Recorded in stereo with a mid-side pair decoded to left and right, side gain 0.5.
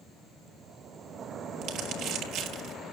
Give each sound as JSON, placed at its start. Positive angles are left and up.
{"t": 1.6, "sound": "crumpling", "azimuth_deg": -65, "distance_m": 5.0}